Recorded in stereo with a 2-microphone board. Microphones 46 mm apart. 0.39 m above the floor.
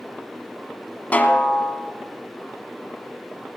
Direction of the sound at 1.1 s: 35° left (ahead or behind).